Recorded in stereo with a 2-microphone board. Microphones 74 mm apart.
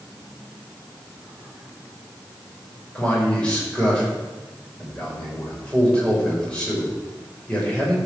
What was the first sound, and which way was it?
A man speaking, 15° left (ahead or behind).